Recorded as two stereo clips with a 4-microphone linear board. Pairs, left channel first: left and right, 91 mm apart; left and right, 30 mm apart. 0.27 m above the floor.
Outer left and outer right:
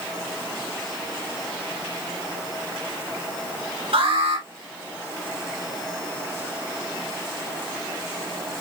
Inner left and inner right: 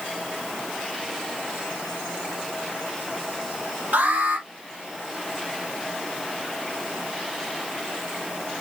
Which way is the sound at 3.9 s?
75° right (ahead or behind).